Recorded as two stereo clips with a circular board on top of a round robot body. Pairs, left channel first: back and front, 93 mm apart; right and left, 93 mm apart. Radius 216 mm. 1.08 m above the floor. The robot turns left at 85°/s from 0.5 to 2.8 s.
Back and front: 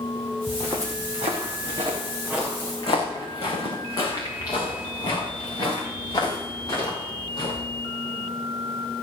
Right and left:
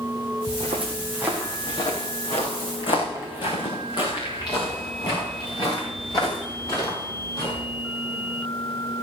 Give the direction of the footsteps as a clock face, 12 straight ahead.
9 o'clock.